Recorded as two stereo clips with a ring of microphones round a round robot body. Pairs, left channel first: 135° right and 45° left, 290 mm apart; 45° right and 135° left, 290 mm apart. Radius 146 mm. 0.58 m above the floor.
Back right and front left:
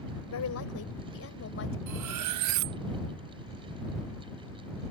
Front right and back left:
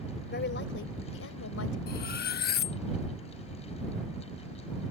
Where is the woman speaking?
100° right; by 1.8 s 85° right.